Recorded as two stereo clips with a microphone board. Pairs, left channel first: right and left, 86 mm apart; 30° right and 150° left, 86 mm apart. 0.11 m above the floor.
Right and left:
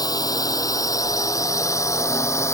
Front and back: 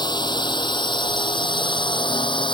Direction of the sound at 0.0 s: 55° right.